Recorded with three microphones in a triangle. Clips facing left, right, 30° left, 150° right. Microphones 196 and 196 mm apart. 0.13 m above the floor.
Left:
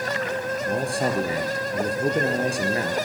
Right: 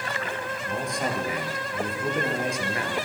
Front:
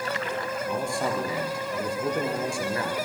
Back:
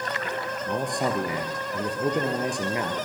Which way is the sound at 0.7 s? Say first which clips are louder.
Left 4 dB, back 2 dB; 140° left.